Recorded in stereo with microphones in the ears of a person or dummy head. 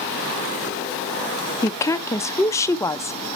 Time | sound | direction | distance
1.6 | a woman speaking | 10° left (ahead or behind) | 0.5 m